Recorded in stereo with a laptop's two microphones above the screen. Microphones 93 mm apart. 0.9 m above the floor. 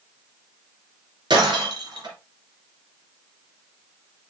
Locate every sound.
1.3 s breaking glass: 50° right (ahead or behind), 3 m